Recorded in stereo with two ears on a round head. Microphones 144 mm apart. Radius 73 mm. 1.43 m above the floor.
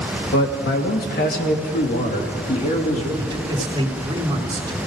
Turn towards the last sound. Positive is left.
turn(degrees=-30)  # may be behind; listen again after turning